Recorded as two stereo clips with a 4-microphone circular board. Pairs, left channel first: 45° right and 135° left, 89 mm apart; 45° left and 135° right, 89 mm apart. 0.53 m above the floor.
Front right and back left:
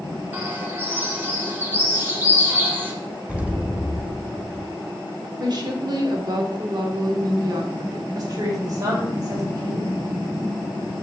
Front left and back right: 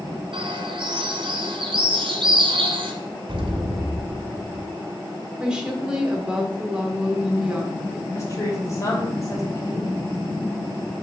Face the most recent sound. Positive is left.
turn(degrees=95)